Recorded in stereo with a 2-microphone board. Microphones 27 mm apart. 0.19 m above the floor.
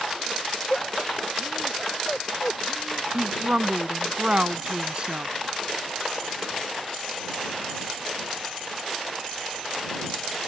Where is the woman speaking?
40° right (ahead or behind).